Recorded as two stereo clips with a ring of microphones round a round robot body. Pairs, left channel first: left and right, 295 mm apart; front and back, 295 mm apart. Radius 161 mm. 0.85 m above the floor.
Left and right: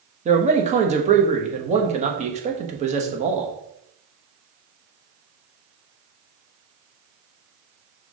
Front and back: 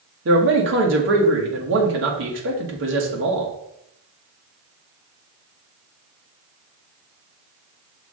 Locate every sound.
0.2 s a man speaking: 150° right, 1.4 m